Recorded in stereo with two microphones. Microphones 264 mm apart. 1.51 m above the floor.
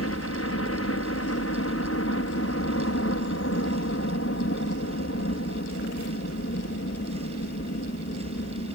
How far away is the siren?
No siren in this recording.